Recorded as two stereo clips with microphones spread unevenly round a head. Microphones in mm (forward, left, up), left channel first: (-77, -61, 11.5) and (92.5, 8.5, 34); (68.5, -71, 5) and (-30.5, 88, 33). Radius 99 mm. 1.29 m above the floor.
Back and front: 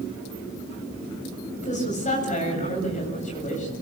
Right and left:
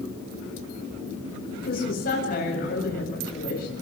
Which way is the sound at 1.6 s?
105° right.